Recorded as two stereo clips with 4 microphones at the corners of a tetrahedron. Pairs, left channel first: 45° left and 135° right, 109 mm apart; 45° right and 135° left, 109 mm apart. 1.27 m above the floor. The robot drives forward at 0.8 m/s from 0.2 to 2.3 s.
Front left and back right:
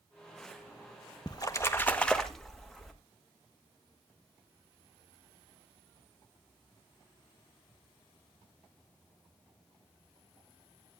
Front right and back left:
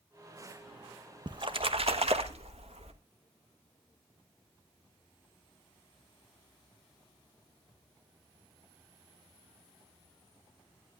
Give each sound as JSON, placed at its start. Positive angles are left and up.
{"t": 1.3, "sound": "a splash", "azimuth_deg": 90, "distance_m": 1.0}